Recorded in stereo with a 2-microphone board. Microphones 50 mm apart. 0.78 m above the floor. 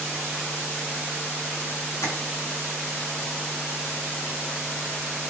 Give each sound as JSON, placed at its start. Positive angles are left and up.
{"t": 2.0, "sound": "tapping", "side_deg": 80, "distance_m": 6.0}